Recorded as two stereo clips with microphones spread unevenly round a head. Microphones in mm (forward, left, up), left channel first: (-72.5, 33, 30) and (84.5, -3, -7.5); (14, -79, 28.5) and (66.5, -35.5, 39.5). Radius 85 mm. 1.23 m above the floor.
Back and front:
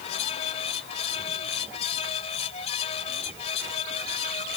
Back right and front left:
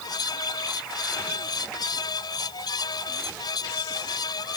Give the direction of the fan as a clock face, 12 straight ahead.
5 o'clock.